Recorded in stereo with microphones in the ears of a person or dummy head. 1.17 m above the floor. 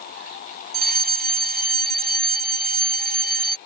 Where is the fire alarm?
50° right (ahead or behind).